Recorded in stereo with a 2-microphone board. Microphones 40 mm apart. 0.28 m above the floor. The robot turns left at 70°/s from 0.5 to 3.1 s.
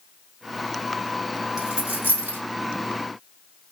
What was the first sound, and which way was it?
A dropped coin, 15° right (ahead or behind).